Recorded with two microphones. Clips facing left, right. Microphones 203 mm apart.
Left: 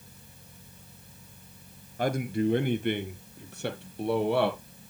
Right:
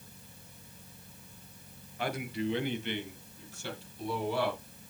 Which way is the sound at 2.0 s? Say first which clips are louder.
Left 7 dB; 45° left (ahead or behind).